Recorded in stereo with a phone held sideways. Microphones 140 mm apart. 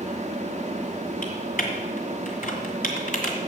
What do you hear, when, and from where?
0.0 s a fan: 55° right (ahead or behind), 1.2 m
1.2 s typing on a keyboard: 75° left (ahead or behind), 1.8 m